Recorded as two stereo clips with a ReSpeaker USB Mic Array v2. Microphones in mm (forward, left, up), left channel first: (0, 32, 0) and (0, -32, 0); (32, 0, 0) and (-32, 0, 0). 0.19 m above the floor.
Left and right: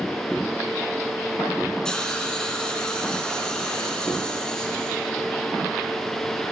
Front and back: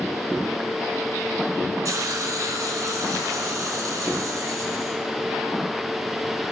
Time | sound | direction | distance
1.9 | a hiss | 165° left | 1.0 m